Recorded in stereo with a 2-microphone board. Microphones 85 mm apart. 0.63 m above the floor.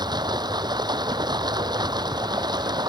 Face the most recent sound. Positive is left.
turn(degrees=-55)  # may be behind; listen again after turning